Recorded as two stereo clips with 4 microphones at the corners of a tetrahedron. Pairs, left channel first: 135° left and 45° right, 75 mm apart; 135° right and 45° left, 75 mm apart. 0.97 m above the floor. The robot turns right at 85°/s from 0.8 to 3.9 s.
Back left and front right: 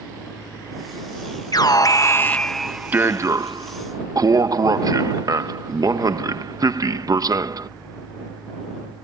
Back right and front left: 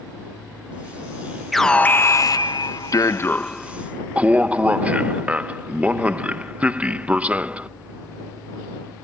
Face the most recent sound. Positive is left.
turn(degrees=-25)